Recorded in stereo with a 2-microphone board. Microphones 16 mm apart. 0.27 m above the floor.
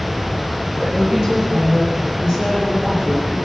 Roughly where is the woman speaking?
Right.